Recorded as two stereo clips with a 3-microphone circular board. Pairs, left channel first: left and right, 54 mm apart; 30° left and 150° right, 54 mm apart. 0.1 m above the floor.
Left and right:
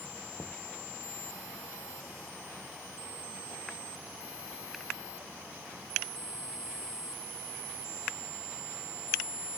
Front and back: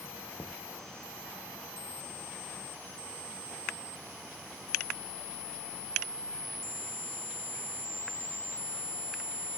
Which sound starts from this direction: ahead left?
Knocking, at 0.4 s.